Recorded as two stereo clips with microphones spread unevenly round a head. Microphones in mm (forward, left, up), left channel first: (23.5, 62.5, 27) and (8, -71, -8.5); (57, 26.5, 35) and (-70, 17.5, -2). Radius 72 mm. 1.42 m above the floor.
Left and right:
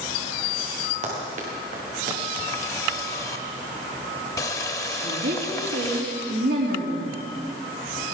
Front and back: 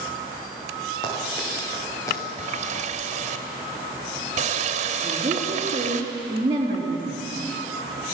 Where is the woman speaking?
110° right, 3.5 m.